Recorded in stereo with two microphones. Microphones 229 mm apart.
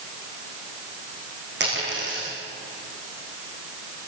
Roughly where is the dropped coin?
Right.